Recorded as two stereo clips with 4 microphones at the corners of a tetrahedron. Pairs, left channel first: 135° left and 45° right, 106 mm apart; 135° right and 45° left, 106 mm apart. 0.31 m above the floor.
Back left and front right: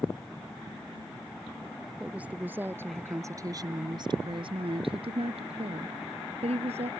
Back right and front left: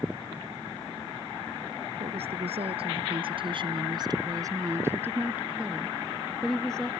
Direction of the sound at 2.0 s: 35° left.